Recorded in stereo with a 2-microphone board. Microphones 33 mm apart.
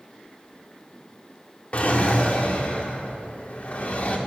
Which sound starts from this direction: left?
A drawer, at 1.7 s.